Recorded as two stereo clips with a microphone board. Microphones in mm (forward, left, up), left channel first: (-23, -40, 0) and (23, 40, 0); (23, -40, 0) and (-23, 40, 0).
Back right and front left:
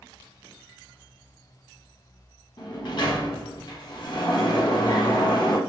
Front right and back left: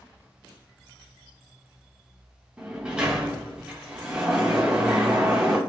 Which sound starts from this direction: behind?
A sliding door, at 2.6 s.